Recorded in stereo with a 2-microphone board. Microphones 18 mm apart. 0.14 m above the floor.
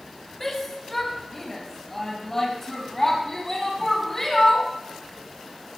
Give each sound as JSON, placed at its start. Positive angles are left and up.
{"t": 0.4, "sound": "a shout", "side_deg": 20, "distance_m": 4.5}